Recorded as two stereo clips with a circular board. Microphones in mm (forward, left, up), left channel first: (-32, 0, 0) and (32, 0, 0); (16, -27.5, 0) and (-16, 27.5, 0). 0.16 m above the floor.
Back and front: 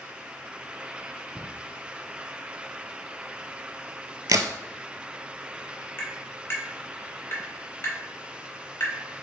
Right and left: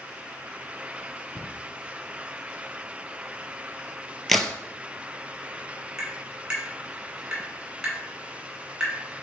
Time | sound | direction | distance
1.4 | a cupboard door | 85° right | 0.7 m
4.3 | a crack | 25° left | 0.5 m
6.0 | tapping | 175° right | 1.4 m